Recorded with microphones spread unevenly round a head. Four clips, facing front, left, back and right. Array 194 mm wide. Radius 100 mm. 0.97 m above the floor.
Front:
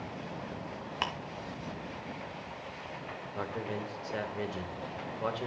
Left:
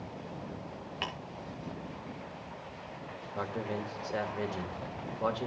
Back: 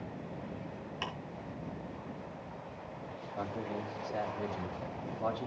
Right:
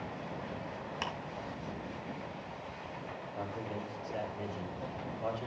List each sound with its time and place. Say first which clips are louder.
1.0 s ticking: even, front 6 dB; 5° right, 2.5 m
3.4 s a man speaking: left 5 dB, front 1 dB; 50° left, 3 m